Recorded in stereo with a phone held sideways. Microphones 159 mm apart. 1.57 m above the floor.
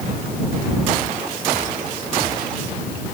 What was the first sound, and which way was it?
Only background noise.